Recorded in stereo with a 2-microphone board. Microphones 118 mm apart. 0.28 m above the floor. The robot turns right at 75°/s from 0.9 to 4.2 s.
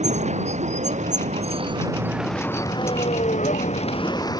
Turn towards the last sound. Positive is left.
turn(degrees=35)  # may be behind; listen again after turning